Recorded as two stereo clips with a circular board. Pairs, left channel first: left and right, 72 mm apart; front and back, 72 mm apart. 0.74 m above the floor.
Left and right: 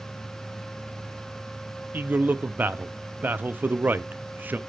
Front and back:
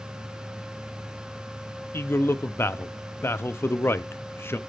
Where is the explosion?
No explosion in this recording.